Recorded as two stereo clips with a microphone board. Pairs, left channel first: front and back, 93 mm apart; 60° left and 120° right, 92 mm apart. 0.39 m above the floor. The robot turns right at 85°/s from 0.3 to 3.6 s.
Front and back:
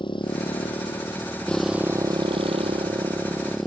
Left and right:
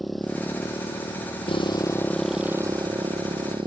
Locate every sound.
0.0 s a motorcycle: 30° right; by 3.7 s 90° right